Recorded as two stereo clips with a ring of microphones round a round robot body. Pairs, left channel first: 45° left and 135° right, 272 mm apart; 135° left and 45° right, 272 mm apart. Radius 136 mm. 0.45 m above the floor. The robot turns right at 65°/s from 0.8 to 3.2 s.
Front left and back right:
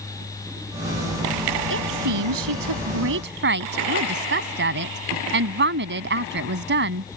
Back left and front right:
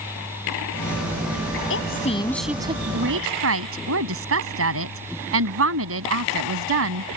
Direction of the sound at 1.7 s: Straight behind.